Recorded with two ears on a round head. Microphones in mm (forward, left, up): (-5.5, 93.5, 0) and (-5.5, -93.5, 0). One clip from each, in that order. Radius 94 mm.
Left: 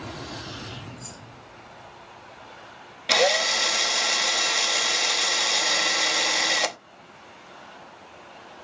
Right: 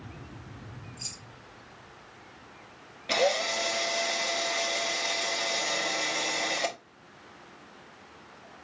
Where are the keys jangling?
65° right (ahead or behind), 4 m.